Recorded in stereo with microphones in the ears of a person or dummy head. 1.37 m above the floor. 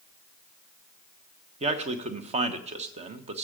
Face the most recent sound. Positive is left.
turn(degrees=-30)  # may be behind; listen again after turning